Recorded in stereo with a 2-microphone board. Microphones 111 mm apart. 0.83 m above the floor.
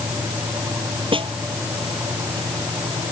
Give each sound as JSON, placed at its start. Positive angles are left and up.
{"t": 1.1, "sound": "a snare drum", "side_deg": -50}